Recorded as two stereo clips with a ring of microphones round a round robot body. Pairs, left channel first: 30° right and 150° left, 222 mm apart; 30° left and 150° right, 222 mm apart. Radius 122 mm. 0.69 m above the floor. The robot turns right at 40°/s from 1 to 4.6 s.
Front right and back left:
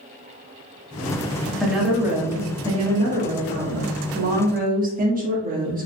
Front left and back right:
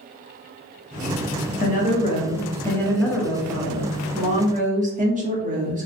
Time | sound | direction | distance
1.6 | a woman speaking | 55° left | 1.3 m